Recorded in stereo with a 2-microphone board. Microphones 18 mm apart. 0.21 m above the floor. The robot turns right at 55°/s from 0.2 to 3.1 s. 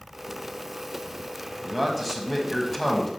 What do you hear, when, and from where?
1.6 s a man speaking: 5° right (ahead or behind), 1.3 m; by 3.1 s 20° left (ahead or behind), 1.3 m